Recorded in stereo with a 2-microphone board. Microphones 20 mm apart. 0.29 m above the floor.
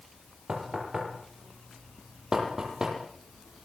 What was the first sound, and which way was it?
Knocking, 35° right (ahead or behind).